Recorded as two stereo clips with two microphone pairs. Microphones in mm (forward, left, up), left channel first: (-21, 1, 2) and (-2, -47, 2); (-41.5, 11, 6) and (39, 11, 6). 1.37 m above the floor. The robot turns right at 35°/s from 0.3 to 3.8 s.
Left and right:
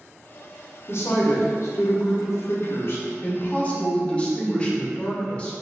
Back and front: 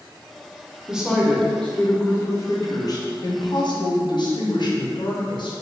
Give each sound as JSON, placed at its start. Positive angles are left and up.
{"t": 0.9, "sound": "a woman speaking", "azimuth_deg": 80, "distance_m": 0.6}